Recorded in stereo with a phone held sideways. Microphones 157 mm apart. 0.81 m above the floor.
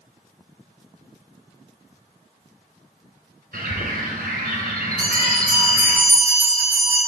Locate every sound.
3.5 s a bird: 70° right (ahead or behind), 2 m
5.0 s a bell: 65° right (ahead or behind), 4.5 m